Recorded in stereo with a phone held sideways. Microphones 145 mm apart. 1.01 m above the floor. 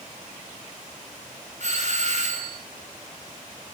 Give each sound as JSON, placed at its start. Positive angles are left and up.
{"t": 1.6, "sound": "a doorbell", "side_deg": -50, "distance_m": 1.7}